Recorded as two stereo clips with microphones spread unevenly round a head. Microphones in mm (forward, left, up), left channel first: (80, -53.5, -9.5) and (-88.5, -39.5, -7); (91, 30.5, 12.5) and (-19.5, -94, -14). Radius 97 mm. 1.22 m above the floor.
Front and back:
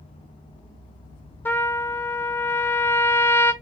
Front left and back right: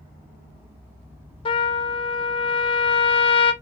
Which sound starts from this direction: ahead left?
A trumpet, at 1.4 s.